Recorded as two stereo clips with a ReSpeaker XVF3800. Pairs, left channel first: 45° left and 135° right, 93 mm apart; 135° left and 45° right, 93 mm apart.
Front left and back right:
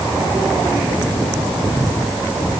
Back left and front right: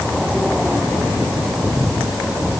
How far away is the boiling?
No boiling in this recording.